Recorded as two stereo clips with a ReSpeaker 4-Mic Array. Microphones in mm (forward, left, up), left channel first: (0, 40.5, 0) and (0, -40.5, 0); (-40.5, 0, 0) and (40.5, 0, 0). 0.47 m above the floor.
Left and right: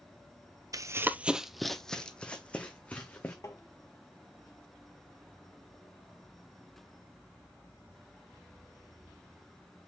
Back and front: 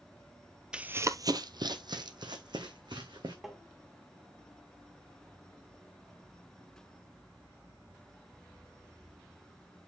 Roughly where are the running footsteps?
Right.